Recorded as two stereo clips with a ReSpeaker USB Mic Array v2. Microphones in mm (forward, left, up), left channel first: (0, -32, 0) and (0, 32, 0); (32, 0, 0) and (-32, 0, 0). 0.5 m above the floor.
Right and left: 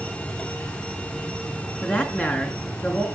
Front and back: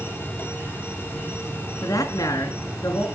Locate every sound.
0.0 s an insect: 135° right, 2 m
1.8 s a woman speaking: 30° right, 4.5 m